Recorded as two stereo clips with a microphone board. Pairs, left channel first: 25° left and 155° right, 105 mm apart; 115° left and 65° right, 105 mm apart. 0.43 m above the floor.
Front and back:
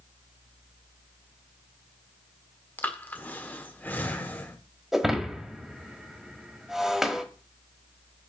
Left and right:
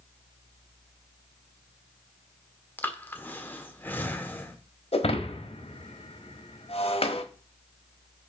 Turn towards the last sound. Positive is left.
turn(degrees=115)